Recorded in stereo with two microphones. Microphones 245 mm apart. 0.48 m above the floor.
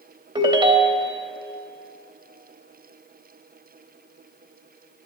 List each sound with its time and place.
0.3 s a ringtone: 20° right (ahead or behind), 0.7 m